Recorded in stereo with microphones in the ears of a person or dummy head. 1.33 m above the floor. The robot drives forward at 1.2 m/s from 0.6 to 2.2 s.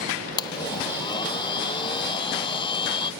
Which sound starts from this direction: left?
A blender, at 0.4 s.